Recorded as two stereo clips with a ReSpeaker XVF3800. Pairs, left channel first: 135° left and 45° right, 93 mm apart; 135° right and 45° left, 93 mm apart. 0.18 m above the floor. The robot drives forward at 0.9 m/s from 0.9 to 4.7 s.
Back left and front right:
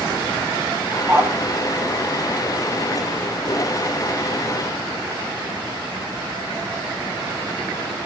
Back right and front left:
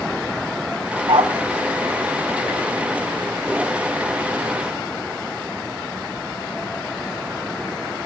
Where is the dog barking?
20° left, 6.5 m.